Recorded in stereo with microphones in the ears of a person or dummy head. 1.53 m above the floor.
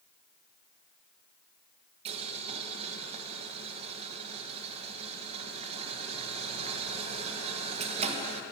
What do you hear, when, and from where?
2.0 s boiling: 30° right (ahead or behind), 1.4 m